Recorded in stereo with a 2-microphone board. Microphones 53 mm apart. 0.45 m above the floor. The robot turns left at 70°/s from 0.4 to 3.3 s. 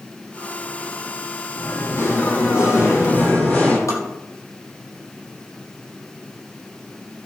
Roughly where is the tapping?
Left.